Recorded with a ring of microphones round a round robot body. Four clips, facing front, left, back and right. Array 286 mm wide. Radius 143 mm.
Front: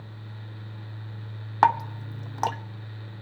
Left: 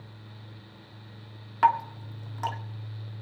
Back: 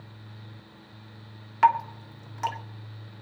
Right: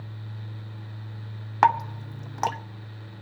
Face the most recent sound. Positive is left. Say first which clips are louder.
# right 2 dB, even
turn(degrees=-35)